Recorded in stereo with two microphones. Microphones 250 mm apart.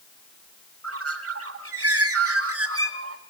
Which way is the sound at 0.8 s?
65° right (ahead or behind).